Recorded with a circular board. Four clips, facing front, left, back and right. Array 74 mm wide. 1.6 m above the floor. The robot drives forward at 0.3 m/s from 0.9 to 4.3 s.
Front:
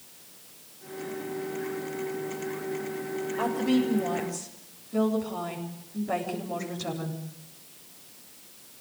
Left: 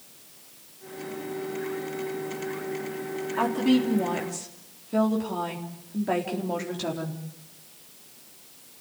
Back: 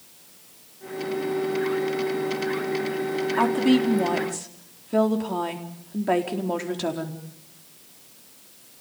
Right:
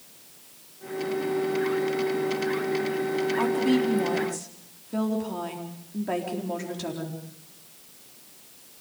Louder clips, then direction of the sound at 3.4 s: Left 2 dB, back 5 dB; 170° left.